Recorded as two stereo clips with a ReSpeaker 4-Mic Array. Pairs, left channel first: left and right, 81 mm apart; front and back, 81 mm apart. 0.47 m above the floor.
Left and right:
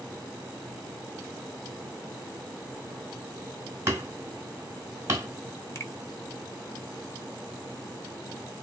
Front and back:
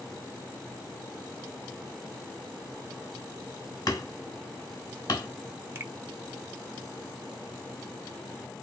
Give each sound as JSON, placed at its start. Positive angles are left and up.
{"t": 3.9, "sound": "hammering", "azimuth_deg": -35, "distance_m": 2.0}
{"t": 5.8, "sound": "a finger snap", "azimuth_deg": 130, "distance_m": 0.9}